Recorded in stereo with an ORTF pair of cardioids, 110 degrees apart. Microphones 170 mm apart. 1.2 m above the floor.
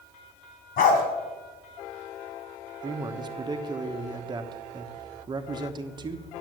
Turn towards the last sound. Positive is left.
turn(degrees=-25)